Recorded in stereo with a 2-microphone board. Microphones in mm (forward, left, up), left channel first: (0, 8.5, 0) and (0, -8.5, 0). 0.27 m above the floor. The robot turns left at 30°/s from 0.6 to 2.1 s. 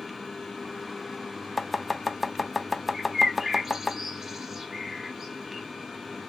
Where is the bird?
15° right (ahead or behind), 1.8 m.